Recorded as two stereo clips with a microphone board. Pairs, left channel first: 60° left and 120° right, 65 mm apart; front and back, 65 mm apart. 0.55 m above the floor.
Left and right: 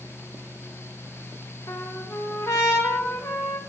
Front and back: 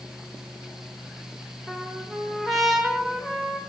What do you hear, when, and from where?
1.7 s a trumpet: 90° left, 1.8 m